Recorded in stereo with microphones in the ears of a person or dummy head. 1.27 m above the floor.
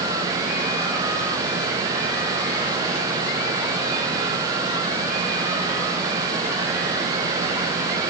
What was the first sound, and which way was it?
Only background noise.